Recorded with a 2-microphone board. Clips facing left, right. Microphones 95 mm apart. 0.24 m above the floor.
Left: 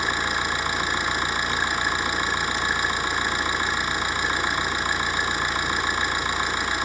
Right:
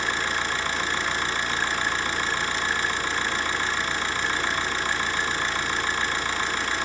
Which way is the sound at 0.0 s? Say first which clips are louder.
Left 2 dB; 15° left (ahead or behind).